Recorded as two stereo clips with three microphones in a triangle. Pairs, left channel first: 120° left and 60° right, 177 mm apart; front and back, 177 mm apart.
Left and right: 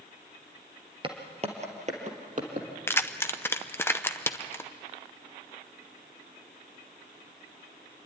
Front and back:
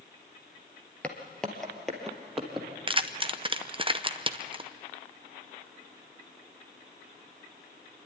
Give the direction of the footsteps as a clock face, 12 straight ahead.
3 o'clock.